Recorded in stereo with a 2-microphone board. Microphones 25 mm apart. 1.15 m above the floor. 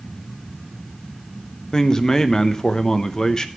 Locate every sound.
1.7 s a man speaking: 30° left (ahead or behind), 1.0 m